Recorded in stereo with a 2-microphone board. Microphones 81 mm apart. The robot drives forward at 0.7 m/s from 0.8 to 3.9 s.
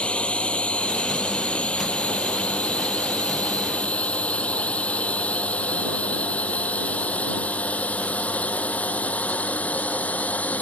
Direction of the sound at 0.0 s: 15° left (ahead or behind).